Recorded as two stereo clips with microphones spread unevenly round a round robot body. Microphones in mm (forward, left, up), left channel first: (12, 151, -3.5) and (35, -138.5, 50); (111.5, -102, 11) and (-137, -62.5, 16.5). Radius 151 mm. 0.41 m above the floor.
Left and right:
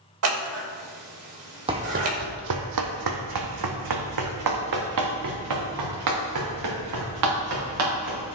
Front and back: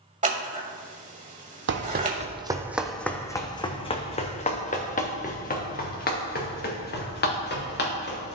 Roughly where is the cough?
No cough in this recording.